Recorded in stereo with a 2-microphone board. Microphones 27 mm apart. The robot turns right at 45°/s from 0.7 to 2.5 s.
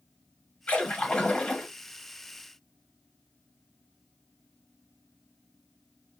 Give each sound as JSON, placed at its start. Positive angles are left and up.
{"t": 0.7, "sound": "a splash", "azimuth_deg": 95, "distance_m": 2.0}